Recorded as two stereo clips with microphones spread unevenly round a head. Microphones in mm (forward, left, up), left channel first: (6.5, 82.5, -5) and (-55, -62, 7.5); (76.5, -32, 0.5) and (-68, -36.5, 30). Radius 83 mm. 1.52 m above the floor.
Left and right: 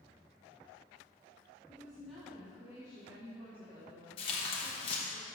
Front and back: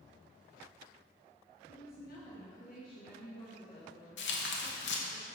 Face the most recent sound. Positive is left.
turn(degrees=10)